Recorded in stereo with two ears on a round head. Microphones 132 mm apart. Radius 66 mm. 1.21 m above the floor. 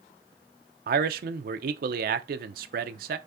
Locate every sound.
0.9 s a man speaking: 60° right (ahead or behind), 0.6 m